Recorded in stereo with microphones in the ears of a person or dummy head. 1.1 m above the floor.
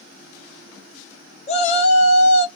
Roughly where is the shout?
Left.